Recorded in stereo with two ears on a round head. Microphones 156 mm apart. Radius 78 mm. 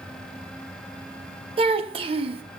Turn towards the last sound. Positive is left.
turn(degrees=-35)  # may be behind; listen again after turning